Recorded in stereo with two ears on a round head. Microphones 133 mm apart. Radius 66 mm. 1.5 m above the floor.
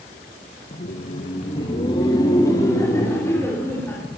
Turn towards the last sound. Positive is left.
turn(degrees=15)  # may be behind; listen again after turning